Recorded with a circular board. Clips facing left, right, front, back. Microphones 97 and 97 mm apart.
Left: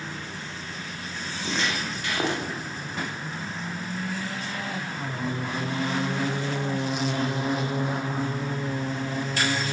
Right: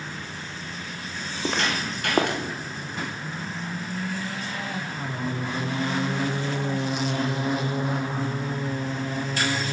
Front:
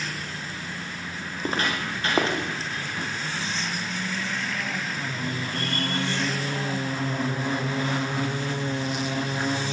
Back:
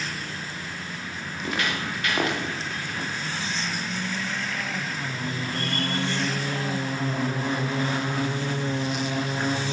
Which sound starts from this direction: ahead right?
Footsteps, at 1.3 s.